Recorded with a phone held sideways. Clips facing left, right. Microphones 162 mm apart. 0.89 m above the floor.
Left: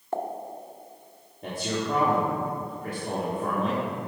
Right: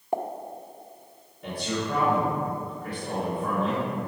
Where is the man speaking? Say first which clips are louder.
Even; 45° left (ahead or behind), 1.6 m.